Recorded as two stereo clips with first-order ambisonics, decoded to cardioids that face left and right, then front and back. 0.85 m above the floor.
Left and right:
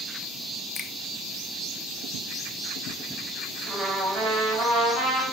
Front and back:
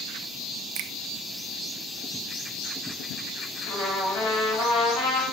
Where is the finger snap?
165° left, 0.6 m.